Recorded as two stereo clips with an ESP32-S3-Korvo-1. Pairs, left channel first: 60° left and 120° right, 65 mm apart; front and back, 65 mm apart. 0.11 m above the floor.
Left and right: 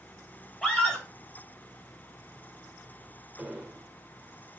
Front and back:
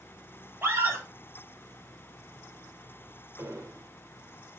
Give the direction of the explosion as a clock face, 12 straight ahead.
6 o'clock.